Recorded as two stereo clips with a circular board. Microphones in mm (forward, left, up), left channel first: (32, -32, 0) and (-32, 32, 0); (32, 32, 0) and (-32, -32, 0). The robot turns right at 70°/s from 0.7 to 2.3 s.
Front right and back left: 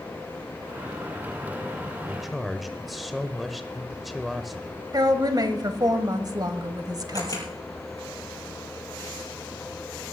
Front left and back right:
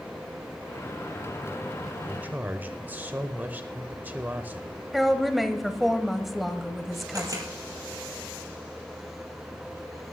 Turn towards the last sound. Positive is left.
turn(degrees=-85)